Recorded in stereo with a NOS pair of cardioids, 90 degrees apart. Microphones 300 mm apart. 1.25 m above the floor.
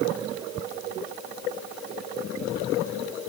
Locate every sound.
Only background noise.